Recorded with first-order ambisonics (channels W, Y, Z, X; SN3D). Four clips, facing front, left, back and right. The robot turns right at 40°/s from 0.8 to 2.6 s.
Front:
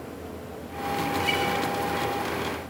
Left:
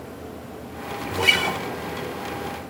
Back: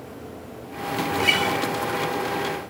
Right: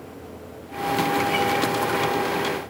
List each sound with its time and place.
1.1 s a guitar: 105° left, 4 m; by 1.6 s 125° left, 4 m